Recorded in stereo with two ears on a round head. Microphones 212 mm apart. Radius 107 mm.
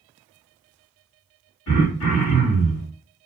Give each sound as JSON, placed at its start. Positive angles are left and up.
{"t": 1.7, "sound": "throat clearing", "side_deg": 75, "distance_m": 1.5}